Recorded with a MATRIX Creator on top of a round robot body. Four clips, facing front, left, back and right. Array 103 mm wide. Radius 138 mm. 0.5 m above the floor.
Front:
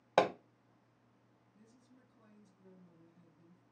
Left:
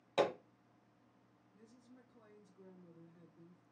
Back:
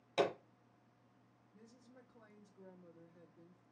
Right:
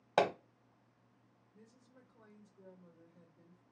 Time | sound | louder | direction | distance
0.2 | hammering | right 3 dB, front 5 dB | 30° right | 0.8 m
1.5 | a woman speaking | left 1 dB, back 3 dB | 170° right | 2.0 m